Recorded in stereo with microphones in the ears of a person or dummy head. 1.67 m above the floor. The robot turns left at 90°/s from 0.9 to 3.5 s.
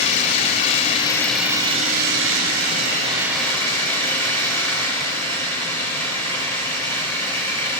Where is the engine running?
40° left, 7 m; by 7.8 s 165° left, 7 m.